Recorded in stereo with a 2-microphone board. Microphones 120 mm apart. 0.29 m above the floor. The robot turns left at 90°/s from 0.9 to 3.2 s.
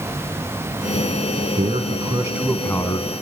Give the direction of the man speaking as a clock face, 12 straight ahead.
3 o'clock.